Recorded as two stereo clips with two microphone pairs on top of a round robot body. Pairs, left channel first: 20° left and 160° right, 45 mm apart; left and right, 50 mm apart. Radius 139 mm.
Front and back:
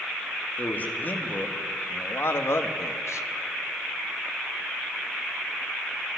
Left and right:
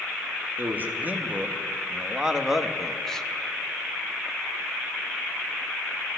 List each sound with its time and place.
0.6 s a man speaking: 35° right, 2 m; by 3.3 s 15° left, 1.4 m